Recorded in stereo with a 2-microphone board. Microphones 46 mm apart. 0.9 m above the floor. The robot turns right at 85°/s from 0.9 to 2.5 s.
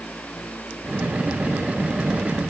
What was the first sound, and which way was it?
Only background noise.